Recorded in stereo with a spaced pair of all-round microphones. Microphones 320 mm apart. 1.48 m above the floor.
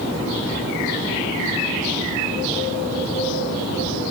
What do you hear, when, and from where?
Only background noise.